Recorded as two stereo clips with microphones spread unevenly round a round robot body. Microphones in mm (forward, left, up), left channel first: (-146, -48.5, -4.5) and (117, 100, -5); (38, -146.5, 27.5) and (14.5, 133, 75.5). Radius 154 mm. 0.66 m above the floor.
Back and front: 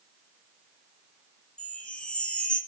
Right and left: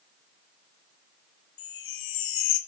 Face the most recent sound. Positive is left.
turn(degrees=-65)